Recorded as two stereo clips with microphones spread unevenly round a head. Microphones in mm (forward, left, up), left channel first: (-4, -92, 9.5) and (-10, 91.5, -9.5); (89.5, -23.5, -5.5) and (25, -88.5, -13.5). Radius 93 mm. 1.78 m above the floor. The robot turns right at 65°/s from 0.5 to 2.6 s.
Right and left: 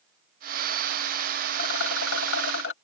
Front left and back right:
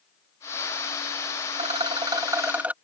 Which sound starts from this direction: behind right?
A rattle, at 1.5 s.